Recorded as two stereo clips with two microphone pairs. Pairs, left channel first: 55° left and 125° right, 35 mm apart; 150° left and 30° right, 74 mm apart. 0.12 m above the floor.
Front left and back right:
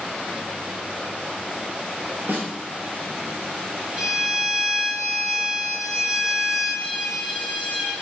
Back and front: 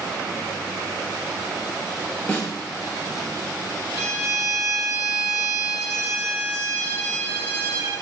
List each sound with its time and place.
2.3 s a snare drum: 140° right, 2 m
4.0 s a violin: 60° right, 1.8 m